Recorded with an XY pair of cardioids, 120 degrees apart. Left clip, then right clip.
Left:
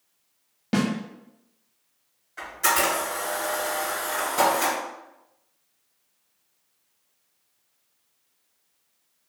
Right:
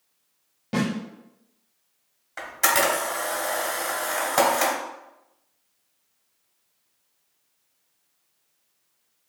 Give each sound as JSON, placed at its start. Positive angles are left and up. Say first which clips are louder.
{"t": 0.7, "sound": "a snare drum", "louder": "left 1 dB", "azimuth_deg": 35, "distance_m": 1.1}
{"t": 2.4, "sound": "a camera shutter", "louder": "right 1 dB", "azimuth_deg": -60, "distance_m": 1.6}